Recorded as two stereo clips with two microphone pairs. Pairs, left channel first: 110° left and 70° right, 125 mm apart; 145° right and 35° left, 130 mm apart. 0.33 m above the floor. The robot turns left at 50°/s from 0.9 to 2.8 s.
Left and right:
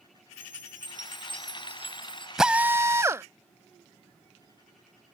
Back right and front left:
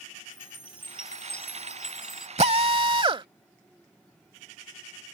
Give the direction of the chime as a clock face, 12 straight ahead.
2 o'clock.